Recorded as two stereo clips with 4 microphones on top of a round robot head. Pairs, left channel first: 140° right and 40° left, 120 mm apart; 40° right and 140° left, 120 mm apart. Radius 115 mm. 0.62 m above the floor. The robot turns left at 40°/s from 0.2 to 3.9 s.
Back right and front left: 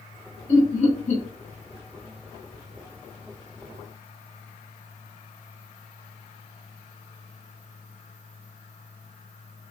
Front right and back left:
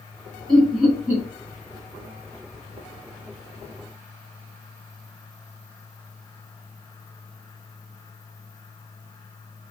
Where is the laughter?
125° right, 1.8 m; by 1.2 s 155° right, 1.8 m.